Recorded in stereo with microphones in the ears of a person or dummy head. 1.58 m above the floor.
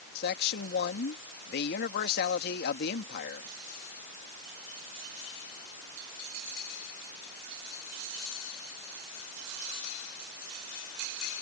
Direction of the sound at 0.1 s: 60° left (ahead or behind).